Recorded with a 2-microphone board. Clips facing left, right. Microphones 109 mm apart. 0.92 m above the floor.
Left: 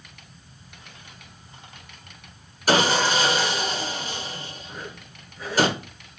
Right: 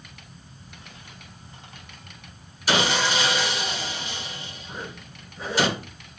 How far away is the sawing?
About 1.0 m.